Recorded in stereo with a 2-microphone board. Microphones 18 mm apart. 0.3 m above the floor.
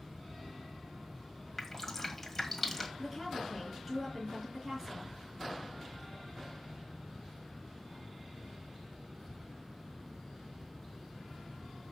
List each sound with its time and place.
1.6 s dripping: 10° left (ahead or behind), 1.6 m
3.0 s a woman speaking: 20° right (ahead or behind), 4.5 m